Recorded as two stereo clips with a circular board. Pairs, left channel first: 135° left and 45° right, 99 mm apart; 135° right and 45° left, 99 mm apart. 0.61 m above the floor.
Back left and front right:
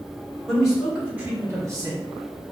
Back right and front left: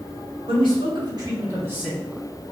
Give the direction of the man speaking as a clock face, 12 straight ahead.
11 o'clock.